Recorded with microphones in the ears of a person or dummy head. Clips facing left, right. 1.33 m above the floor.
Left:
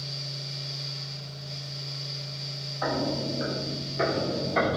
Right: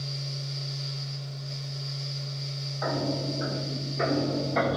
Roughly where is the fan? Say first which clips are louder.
Right 3 dB; right.